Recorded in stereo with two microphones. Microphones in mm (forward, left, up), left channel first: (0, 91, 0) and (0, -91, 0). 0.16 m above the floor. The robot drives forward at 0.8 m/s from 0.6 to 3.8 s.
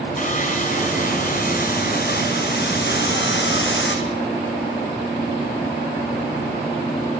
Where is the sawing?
40° left (ahead or behind), 4.5 m; by 4.0 s 75° left (ahead or behind), 3.5 m.